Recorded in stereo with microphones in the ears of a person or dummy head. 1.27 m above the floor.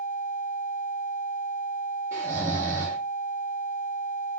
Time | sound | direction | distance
2.1 | snoring | 15° right (ahead or behind) | 1.1 m